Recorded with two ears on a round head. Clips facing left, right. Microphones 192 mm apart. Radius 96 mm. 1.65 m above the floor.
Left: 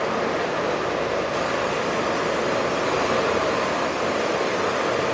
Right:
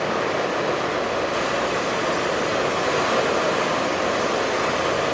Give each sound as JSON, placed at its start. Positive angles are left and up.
{"t": 0.0, "sound": "running water", "side_deg": -75, "distance_m": 3.0}